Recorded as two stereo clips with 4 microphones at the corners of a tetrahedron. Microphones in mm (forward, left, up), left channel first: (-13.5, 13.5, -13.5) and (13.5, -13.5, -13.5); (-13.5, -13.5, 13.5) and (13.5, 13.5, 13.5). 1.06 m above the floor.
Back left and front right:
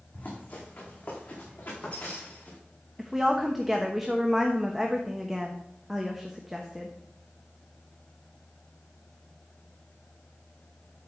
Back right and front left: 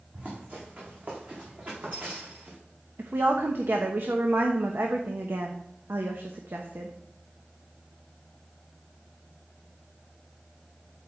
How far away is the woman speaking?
About 1.0 m.